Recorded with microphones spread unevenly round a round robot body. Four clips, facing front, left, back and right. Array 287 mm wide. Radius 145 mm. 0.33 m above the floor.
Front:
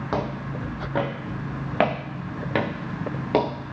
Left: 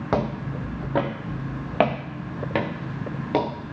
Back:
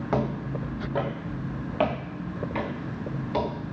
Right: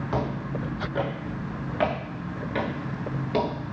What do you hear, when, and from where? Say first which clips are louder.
0.1 s footsteps: left 4 dB, back 1 dB; 75° left, 2.5 m; by 3.5 s 20° left, 2 m